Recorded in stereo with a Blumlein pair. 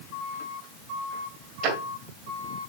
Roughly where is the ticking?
Ahead right.